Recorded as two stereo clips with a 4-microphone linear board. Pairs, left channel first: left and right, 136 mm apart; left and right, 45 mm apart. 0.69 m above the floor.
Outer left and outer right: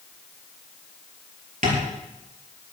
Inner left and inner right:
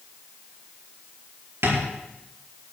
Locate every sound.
1.6 s tapping: 70° right (ahead or behind), 5 m